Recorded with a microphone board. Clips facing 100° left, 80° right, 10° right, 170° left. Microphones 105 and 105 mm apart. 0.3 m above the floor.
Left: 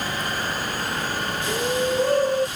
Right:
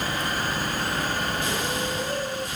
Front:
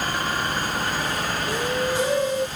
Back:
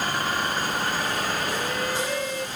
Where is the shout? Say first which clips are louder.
Left 5 dB, front 3 dB; 55° left.